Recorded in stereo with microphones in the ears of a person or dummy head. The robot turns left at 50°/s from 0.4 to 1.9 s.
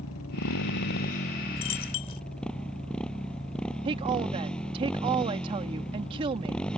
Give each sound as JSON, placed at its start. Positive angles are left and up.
{"t": 0.0, "sound": "a motorcycle", "azimuth_deg": 80}
{"t": 1.6, "sound": "a dropped coin", "side_deg": 30}
{"t": 3.9, "sound": "a woman speaking", "side_deg": -30}